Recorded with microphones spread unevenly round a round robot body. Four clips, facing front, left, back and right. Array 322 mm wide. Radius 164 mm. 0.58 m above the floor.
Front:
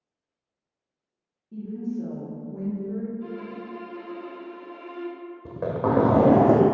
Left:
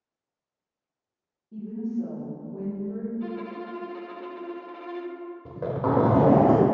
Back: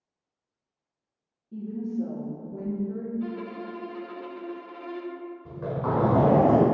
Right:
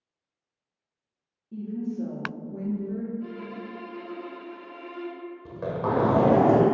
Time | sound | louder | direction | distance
1.5 | a woman speaking | left 1 dB, even | 105° right | 1.2 m
3.2 | a violin | left 3 dB, back 2 dB | 125° left | 0.7 m
5.5 | a zipper | left 2 dB, front 5 dB | 15° left | 0.7 m